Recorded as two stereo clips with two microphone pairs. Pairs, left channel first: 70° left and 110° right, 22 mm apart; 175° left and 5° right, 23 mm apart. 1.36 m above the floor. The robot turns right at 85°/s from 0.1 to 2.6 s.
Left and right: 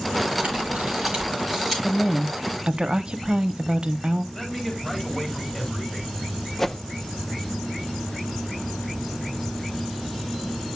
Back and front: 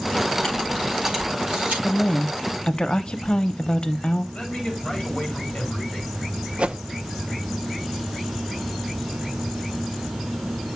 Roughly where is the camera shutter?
Behind right.